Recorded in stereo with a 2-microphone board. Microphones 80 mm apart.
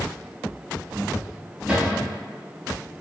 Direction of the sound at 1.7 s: 15° right (ahead or behind).